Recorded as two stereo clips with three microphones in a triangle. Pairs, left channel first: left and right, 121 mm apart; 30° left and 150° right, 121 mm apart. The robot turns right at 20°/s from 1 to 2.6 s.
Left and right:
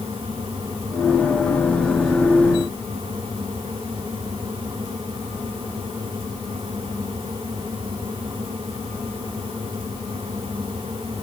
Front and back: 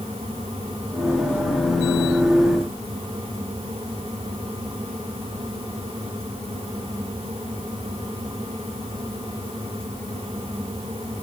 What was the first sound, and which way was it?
Only background noise.